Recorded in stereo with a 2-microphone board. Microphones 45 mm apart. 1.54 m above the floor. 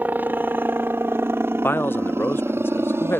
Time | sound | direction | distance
0.0 | a helicopter | 45° right (ahead or behind) | ?
1.6 | a man speaking | 60° left (ahead or behind) | ?